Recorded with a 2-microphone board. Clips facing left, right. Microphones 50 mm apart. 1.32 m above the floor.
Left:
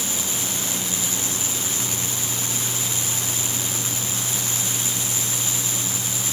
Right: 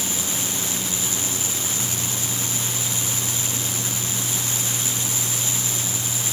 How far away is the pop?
No pop in this recording.